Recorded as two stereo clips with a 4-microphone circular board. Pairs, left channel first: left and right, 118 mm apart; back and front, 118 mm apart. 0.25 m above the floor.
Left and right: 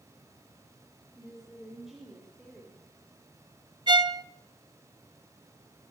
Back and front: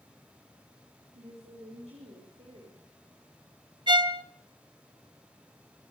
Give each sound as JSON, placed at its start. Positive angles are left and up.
{"t": 1.1, "sound": "a woman speaking", "azimuth_deg": 0, "distance_m": 4.5}
{"t": 3.9, "sound": "a violin", "azimuth_deg": -45, "distance_m": 0.6}